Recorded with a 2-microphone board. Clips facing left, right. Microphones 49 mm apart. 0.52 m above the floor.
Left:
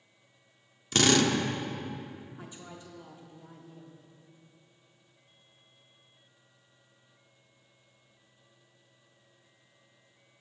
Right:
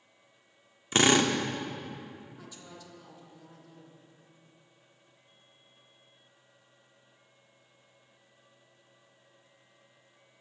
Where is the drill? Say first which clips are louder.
Right 1 dB; 25° right (ahead or behind), 0.6 m.